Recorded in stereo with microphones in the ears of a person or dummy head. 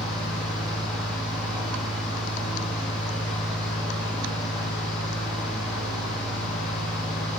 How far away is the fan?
About 1.1 m.